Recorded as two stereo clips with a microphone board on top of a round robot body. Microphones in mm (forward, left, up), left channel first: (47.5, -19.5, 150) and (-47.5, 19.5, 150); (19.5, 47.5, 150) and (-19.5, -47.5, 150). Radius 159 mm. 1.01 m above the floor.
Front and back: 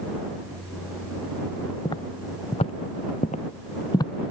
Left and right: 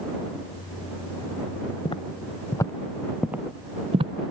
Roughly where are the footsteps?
Ahead left.